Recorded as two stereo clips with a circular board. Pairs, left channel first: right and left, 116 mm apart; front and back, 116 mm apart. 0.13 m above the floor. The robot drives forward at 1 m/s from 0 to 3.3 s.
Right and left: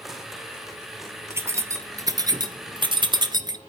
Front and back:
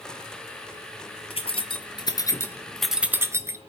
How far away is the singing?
I don't hear singing.